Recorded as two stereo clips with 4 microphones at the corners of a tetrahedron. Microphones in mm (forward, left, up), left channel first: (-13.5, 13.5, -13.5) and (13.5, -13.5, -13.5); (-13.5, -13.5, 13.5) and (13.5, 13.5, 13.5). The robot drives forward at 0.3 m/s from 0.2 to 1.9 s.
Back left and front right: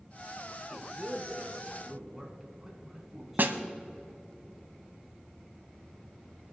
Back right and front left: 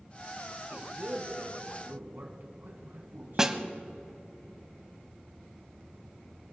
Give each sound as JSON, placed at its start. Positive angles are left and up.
{"t": 0.6, "sound": "a man speaking", "azimuth_deg": 35, "distance_m": 2.5}
{"t": 3.4, "sound": "a snare drum", "azimuth_deg": -30, "distance_m": 0.8}